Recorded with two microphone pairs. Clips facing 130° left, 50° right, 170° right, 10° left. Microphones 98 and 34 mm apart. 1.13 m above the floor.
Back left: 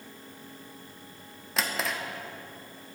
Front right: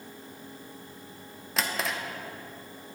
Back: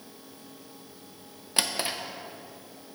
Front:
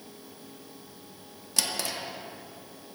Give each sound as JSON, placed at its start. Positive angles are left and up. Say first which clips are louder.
{"t": 1.6, "sound": "a drawer", "louder": "even, back 2 dB", "azimuth_deg": -145, "distance_m": 0.6}